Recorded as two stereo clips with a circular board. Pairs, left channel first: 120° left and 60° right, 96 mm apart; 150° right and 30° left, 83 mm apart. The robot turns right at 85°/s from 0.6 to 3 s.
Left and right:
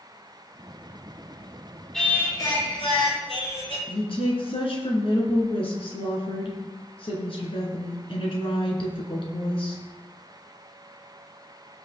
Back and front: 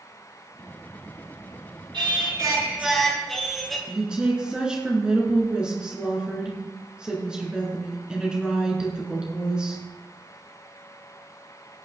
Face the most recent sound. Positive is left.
turn(degrees=110)